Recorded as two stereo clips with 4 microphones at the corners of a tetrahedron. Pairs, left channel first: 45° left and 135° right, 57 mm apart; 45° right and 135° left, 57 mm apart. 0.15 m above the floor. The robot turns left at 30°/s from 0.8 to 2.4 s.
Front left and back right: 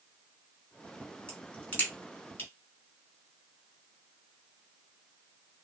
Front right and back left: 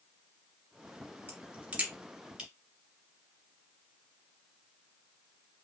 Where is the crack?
105° left, 2 m; by 2.5 s 70° left, 2 m.